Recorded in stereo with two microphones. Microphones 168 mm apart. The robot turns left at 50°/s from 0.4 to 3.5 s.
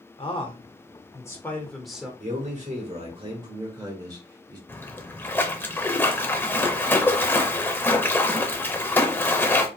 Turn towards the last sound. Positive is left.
turn(degrees=10)  # may be behind; listen again after turning